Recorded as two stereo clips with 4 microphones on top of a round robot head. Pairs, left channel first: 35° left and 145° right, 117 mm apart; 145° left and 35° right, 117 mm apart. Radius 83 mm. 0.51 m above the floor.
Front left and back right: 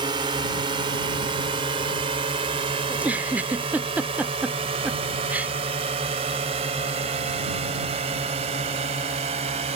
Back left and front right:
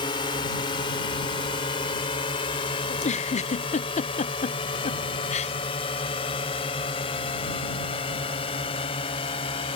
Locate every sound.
0.0 s a drone: straight behind; by 9.8 s 175° right
2.9 s a giggle: 140° left